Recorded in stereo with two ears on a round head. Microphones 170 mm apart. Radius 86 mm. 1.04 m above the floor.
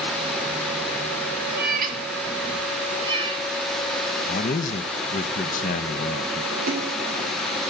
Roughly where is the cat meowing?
Right.